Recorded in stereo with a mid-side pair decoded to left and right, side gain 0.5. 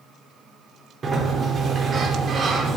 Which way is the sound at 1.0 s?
40° right.